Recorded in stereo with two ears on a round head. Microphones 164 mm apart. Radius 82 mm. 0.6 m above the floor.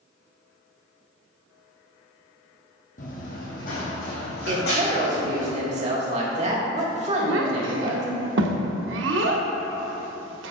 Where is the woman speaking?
40° right (ahead or behind), 1.3 m.